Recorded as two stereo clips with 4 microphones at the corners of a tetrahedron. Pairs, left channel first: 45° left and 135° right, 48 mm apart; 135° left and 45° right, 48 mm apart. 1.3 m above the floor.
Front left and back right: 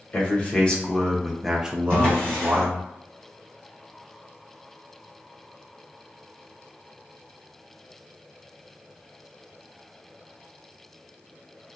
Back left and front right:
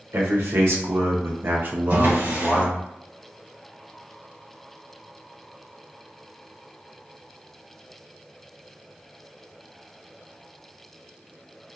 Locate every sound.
0.1 s a man speaking: 20° right, 1.2 m; by 2.8 s 140° right, 0.8 m
1.9 s a drawer: 20° right, 1.8 m